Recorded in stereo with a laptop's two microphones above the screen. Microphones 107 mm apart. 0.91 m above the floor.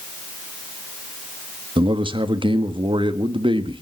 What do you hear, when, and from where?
1.8 s a man speaking: 50° right (ahead or behind), 1.5 m